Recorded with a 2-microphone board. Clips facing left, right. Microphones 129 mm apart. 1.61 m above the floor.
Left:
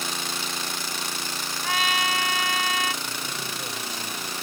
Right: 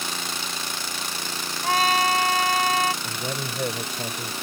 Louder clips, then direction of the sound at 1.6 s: Right 6 dB; 40° right (ahead or behind).